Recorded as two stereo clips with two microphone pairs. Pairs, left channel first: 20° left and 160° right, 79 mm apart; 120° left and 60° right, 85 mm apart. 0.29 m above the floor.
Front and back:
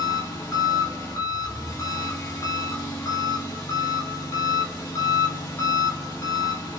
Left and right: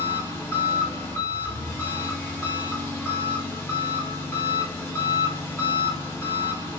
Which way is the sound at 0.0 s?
60° left.